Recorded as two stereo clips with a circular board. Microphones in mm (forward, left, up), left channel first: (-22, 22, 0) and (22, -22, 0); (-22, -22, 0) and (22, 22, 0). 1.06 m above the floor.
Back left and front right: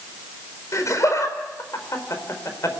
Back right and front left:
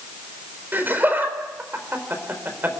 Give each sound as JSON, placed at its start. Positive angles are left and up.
{"t": 0.7, "sound": "laughter", "azimuth_deg": 105, "distance_m": 4.0}